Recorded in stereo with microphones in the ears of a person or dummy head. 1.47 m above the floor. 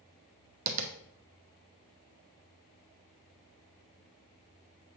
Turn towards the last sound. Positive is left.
turn(degrees=-45)  # may be behind; listen again after turning